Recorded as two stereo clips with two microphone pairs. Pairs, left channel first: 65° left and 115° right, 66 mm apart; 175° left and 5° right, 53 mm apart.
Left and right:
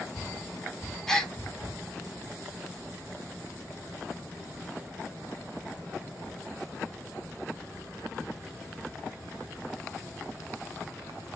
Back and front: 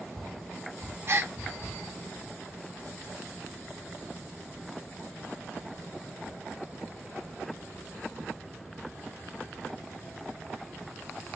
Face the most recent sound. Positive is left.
turn(degrees=-15)